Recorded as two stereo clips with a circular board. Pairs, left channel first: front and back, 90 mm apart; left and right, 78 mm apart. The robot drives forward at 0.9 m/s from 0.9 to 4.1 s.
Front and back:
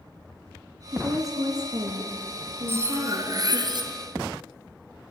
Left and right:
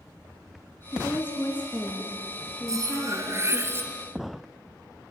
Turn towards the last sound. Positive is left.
turn(degrees=-150)